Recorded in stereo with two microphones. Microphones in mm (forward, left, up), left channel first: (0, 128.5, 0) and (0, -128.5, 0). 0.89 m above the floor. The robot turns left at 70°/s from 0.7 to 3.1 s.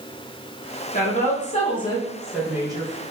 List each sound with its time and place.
0.9 s a woman speaking: 95° left, 0.8 m; by 3.0 s 50° right, 0.8 m